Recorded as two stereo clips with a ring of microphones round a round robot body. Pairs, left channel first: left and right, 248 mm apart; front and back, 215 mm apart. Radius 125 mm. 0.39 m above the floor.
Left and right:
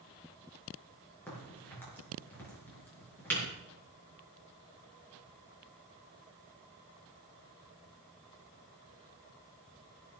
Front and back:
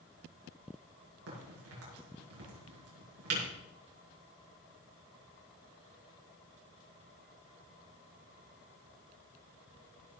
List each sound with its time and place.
1.3 s a crack: 175° left, 5 m